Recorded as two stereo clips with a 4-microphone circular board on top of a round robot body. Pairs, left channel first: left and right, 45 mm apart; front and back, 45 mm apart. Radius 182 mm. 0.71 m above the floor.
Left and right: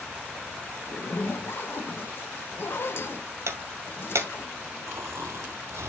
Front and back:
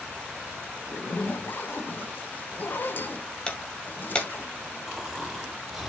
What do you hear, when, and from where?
0.9 s a zipper: 50° left, 1.3 m
3.5 s breaking glass: 70° right, 2 m
4.9 s snoring: 95° right, 3 m